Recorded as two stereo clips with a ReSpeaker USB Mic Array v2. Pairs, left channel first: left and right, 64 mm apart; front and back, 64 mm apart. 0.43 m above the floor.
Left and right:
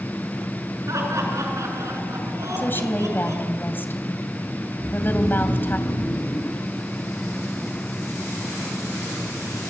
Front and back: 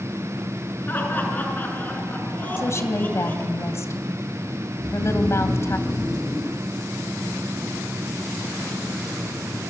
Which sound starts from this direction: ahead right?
Laughter, at 0.9 s.